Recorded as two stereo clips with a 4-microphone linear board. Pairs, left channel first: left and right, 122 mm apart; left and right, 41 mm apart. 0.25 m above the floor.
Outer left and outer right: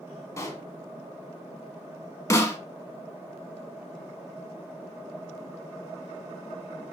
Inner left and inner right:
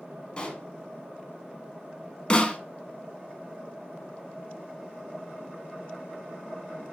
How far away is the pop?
About 0.6 m.